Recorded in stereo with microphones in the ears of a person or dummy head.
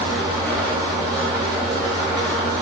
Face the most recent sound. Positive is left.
turn(degrees=10)  # may be behind; listen again after turning